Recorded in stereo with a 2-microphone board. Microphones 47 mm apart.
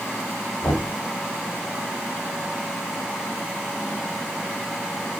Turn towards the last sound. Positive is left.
turn(degrees=55)  # may be behind; listen again after turning